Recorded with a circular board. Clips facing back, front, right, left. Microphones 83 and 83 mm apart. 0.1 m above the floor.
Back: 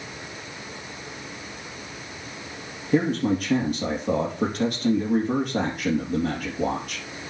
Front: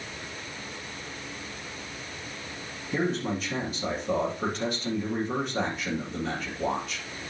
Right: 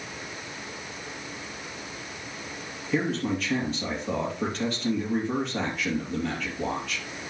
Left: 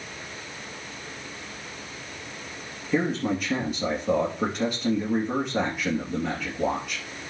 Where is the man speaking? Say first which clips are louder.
Back 7 dB, left 2 dB; 165° left, 3 m.